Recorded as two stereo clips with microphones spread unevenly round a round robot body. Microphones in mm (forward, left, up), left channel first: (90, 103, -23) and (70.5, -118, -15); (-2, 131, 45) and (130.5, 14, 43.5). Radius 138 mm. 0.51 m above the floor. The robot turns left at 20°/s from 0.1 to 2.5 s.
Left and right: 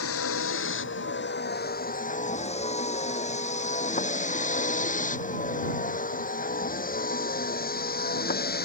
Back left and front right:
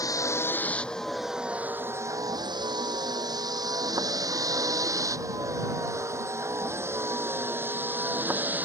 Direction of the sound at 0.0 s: 65° left.